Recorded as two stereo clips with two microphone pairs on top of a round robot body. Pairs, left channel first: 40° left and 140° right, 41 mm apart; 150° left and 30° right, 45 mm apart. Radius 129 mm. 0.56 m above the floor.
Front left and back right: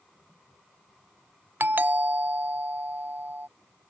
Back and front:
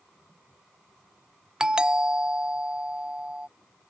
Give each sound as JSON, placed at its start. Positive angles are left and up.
{"t": 1.6, "sound": "a doorbell", "azimuth_deg": -100}